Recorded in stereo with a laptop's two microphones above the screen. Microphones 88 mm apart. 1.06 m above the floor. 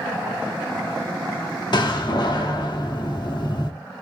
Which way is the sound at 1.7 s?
55° left (ahead or behind).